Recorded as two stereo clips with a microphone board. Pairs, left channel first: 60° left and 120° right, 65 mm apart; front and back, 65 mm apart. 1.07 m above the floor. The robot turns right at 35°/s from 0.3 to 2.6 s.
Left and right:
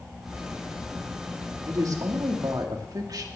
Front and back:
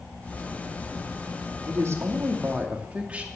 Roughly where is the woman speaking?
Behind right.